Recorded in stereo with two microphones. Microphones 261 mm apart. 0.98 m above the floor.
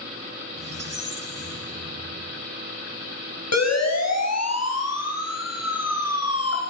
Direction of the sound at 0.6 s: 65° right (ahead or behind).